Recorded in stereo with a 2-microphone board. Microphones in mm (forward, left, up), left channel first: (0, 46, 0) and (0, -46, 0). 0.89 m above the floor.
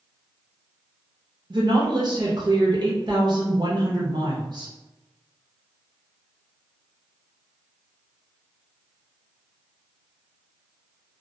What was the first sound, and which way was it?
A woman speaking, 50° right (ahead or behind).